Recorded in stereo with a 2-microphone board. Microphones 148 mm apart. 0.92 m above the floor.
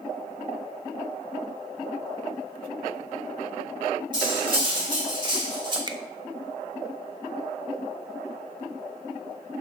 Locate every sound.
4.1 s cutlery clinking: 35° right (ahead or behind), 1.8 m
5.9 s a finger snap: 30° right (ahead or behind), 0.6 m